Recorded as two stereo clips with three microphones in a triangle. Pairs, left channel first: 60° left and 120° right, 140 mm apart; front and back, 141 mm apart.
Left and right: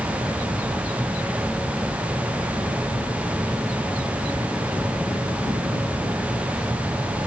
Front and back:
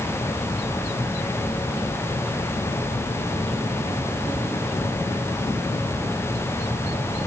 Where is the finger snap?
I don't hear a finger snap.